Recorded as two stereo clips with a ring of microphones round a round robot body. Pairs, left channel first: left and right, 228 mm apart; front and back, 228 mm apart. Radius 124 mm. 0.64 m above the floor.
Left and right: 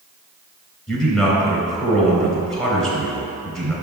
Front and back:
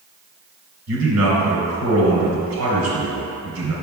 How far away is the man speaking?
About 3 m.